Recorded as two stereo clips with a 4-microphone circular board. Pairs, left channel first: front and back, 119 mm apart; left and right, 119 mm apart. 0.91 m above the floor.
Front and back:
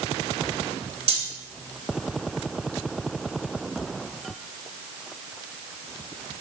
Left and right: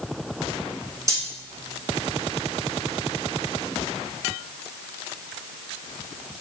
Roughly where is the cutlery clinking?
Behind right.